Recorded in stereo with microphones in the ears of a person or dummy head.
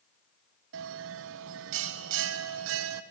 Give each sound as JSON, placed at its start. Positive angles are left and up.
{"t": 0.7, "sound": "a bell", "side_deg": -70, "distance_m": 0.6}